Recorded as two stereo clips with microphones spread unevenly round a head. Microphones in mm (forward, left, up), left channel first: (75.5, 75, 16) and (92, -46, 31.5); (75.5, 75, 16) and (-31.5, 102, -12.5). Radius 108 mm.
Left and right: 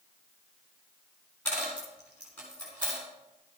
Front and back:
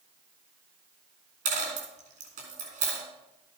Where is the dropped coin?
175° right, 3.5 m.